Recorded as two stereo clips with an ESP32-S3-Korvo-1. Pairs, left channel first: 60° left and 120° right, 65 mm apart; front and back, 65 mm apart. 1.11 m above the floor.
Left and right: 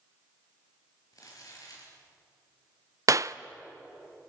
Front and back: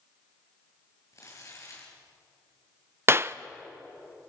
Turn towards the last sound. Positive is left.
turn(degrees=-135)